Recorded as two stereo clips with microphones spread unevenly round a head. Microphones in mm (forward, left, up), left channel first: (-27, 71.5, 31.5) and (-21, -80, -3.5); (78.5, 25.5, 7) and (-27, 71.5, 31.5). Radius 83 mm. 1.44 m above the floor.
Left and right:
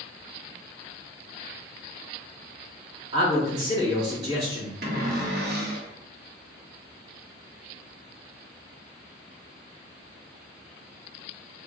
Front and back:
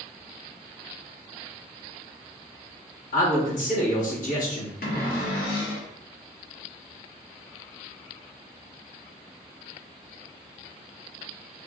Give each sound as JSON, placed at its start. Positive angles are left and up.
{"t": 3.1, "sound": "a man speaking", "azimuth_deg": -20, "distance_m": 1.5}
{"t": 4.8, "sound": "a cupboard door", "azimuth_deg": -45, "distance_m": 0.7}